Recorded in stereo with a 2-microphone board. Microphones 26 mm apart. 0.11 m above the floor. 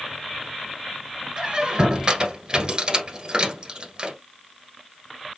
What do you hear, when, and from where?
1.4 s a squeak: 35° right (ahead or behind), 1.4 m